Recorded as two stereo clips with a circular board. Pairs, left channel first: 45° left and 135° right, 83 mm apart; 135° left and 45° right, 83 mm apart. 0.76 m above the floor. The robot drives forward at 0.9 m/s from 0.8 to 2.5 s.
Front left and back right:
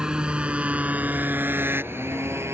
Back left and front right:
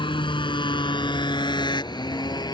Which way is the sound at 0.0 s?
145° left.